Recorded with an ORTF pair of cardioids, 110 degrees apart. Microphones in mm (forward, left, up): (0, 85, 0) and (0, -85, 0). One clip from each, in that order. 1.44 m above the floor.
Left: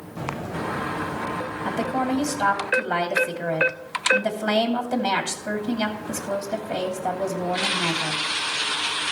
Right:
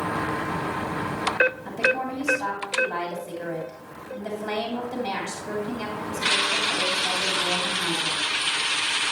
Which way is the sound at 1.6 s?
60° left.